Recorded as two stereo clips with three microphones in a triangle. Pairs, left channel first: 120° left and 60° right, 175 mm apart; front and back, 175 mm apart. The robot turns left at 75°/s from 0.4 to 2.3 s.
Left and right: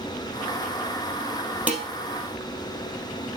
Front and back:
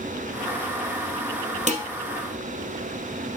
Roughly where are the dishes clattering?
Behind right.